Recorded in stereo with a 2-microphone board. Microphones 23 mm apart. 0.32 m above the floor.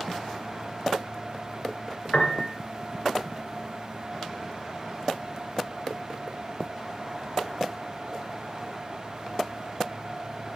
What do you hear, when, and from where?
2.1 s a piano: 80° left, 2.0 m